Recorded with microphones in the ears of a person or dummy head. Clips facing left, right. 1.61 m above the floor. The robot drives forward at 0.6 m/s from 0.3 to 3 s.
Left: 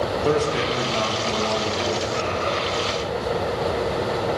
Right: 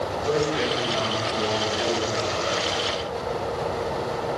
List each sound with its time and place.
0.2 s a man speaking: 60° left (ahead or behind), 1.5 m; by 2.6 s 30° left (ahead or behind), 2.5 m